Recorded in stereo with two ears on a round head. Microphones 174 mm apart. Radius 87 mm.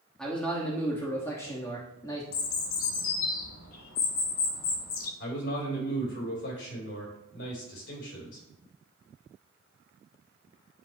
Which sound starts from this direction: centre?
A man speaking, at 0.2 s.